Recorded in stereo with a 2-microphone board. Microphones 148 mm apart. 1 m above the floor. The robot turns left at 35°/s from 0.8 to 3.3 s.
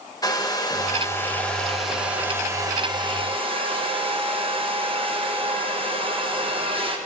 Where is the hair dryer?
35° left, 0.9 m; by 7.0 s 55° right, 0.9 m.